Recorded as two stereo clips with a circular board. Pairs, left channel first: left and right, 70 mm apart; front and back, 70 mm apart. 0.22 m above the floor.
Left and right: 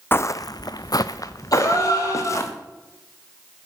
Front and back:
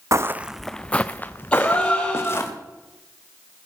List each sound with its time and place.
0.1 s footsteps: 145° left, 0.5 m; by 2.5 s 50° left, 2.5 m
1.5 s a gasp: 70° left, 7 m